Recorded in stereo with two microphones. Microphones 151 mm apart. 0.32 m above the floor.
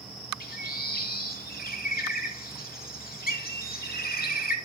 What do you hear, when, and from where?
0.4 s a bird: 80° left, 0.7 m